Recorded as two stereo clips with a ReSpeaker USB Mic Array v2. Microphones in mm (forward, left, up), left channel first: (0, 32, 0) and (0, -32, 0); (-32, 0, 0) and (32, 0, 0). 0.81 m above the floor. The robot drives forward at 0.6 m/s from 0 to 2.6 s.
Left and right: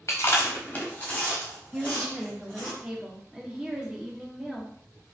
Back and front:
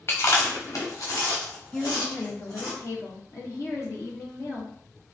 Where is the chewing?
130° left, 0.6 m; by 2.7 s 165° left, 1.9 m.